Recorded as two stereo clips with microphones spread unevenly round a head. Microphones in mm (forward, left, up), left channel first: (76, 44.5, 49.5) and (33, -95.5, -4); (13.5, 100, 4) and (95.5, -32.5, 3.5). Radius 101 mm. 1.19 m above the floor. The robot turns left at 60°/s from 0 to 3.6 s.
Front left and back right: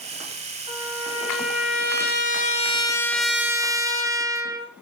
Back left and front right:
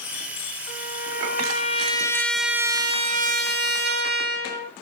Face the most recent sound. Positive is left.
turn(degrees=-45)